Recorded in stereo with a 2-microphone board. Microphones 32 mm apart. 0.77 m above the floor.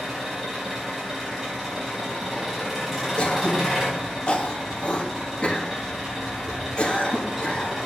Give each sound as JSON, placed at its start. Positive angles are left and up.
{"t": 0.0, "sound": "an engine running", "side_deg": -10, "distance_m": 4.5}
{"t": 3.2, "sound": "throat clearing", "side_deg": 40, "distance_m": 1.3}